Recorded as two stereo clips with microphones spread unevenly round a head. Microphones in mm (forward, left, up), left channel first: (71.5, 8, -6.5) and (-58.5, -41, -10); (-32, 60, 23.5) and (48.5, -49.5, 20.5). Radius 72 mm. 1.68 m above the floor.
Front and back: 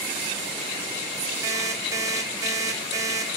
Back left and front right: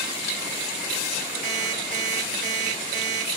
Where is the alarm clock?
90° right, 4 m.